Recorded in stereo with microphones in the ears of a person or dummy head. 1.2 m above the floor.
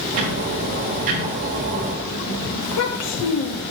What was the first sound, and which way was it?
Ticking, 30° right (ahead or behind).